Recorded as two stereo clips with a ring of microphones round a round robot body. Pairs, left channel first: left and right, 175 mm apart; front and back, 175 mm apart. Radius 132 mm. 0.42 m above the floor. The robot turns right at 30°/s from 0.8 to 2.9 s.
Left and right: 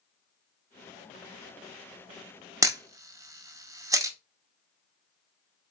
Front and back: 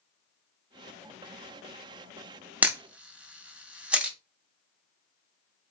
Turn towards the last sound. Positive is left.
turn(degrees=-110)